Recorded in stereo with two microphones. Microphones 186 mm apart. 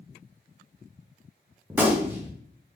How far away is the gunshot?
About 0.6 m.